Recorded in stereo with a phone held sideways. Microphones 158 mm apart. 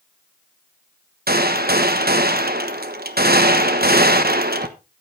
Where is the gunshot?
80° right, 1.3 m.